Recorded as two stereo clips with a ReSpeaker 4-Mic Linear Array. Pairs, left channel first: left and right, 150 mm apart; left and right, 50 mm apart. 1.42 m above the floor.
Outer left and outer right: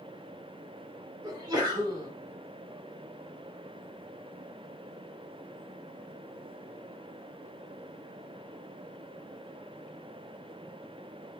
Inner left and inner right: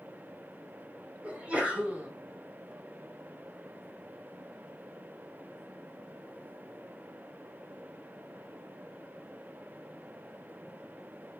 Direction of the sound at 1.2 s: 25° right (ahead or behind).